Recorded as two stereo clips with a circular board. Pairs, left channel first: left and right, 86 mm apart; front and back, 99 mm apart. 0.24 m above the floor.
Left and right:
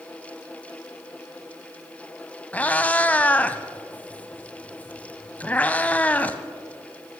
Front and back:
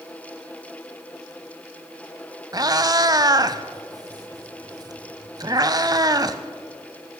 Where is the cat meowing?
155° left, 0.6 m.